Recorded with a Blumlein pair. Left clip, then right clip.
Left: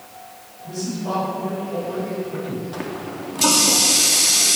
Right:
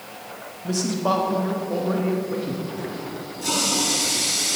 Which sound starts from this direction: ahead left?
A running tap, at 2.7 s.